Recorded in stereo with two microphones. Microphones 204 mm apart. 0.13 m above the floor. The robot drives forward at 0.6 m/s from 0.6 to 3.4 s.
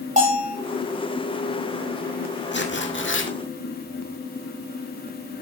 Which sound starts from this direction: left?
Tearing paper, at 2.5 s.